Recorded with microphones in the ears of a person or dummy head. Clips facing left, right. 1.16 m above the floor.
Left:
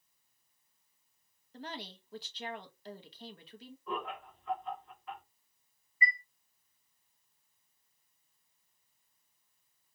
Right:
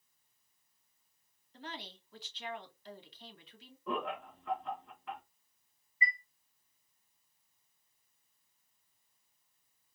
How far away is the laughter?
About 1.7 m.